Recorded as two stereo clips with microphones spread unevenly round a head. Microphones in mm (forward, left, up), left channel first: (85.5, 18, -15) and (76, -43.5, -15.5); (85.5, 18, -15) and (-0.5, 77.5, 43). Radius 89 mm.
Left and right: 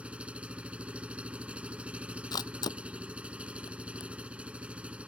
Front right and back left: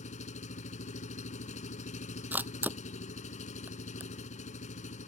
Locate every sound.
0.0 s an engine running: 30° right
2.3 s a camera shutter: 75° left